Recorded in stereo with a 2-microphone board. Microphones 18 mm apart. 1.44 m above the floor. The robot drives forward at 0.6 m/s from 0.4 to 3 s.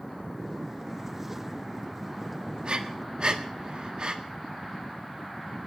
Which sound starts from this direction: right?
Breathing, at 2.6 s.